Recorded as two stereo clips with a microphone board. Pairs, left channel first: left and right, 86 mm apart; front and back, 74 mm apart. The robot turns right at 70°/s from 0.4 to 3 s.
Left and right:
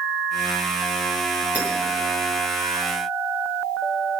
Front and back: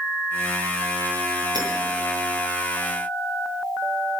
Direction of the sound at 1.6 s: 160° right.